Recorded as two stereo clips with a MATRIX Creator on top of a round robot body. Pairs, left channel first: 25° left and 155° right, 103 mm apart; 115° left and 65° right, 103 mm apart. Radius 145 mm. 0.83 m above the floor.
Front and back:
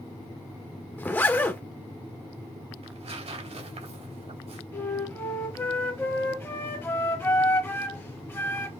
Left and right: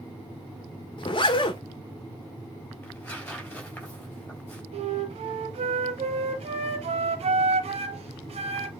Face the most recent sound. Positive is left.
turn(degrees=-45)